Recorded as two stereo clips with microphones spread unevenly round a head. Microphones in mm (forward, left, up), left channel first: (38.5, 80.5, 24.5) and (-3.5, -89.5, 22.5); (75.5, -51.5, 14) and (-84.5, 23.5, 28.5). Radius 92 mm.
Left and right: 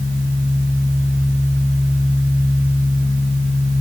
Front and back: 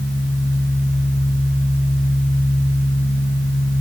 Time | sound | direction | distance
0.0 | a fan | 50° right | 2 m